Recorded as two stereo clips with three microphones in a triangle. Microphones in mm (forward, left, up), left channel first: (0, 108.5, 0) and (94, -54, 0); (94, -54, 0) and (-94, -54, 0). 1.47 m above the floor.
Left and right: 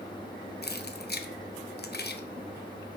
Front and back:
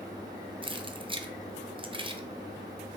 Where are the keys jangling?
125° left, 0.6 m.